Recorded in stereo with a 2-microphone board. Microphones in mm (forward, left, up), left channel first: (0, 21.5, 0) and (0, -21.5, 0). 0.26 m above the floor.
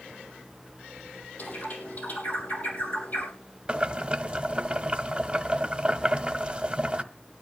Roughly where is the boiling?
Right.